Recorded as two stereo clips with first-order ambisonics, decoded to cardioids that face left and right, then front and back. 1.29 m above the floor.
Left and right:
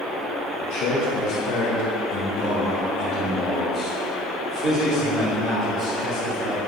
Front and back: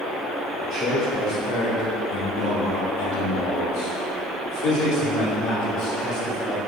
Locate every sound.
0.6 s a man speaking: 80° left, 1.6 m; by 6.6 s 30° right, 3.5 m